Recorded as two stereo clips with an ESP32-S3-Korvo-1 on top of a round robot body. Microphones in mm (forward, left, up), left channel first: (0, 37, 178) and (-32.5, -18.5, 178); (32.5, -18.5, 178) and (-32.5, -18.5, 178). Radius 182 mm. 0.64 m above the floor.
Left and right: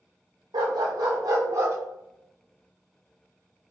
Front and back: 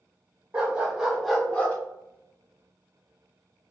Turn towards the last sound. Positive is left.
turn(degrees=-65)